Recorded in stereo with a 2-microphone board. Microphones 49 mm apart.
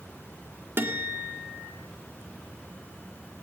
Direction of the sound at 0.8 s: 45° right (ahead or behind).